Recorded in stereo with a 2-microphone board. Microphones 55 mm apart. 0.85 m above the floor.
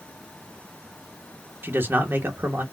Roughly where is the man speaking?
Right.